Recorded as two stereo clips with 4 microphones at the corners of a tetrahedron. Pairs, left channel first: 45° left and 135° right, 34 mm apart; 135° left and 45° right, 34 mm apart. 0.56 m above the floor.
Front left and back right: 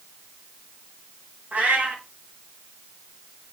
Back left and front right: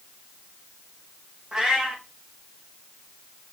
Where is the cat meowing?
105° right, 1.3 m.